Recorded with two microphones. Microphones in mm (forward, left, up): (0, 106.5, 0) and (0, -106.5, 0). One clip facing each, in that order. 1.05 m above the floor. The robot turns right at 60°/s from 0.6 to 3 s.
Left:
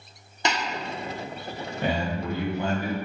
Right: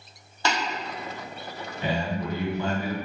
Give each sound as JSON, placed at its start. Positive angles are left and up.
{"t": 0.5, "sound": "tapping", "side_deg": 20, "distance_m": 0.7}
{"t": 1.8, "sound": "a man speaking", "azimuth_deg": 60, "distance_m": 1.1}